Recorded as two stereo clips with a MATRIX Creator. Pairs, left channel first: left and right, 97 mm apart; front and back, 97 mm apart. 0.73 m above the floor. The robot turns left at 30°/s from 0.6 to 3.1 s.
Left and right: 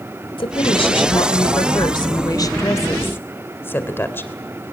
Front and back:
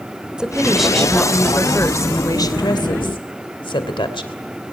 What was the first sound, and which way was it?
A woman speaking, 100° left.